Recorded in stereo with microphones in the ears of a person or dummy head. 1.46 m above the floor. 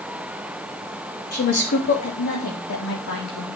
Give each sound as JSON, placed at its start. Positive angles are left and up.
{"t": 1.3, "sound": "a woman speaking", "side_deg": 50, "distance_m": 3.0}